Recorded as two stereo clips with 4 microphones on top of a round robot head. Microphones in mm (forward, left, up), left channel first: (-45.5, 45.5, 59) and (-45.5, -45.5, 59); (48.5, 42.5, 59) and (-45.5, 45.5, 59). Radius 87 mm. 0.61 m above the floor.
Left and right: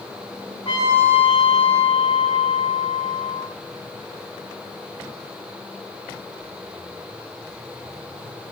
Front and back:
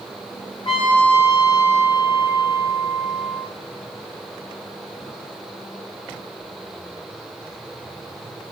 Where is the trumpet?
30° left, 5.5 m.